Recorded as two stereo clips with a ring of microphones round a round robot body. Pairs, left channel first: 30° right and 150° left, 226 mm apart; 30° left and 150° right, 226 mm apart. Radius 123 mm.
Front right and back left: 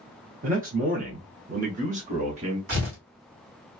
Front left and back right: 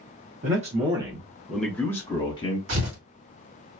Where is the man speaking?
Straight behind, 1.0 m; by 2.6 s 90° left, 1.4 m.